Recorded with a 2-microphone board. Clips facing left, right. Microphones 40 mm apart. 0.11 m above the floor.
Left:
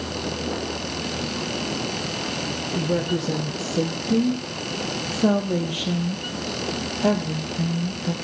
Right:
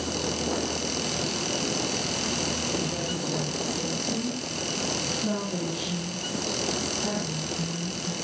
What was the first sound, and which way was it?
A woman speaking, 65° left (ahead or behind).